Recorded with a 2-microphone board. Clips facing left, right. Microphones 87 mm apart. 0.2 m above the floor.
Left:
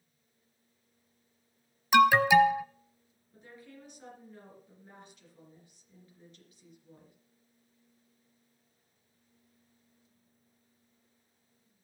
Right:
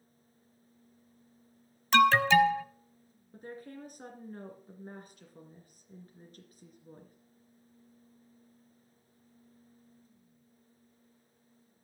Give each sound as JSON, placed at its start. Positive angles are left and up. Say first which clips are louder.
{"t": 1.9, "sound": "an alarm", "louder": "left 2 dB", "side_deg": 10, "distance_m": 0.8}
{"t": 3.3, "sound": "a woman speaking", "louder": "right 7 dB", "side_deg": -45, "distance_m": 2.5}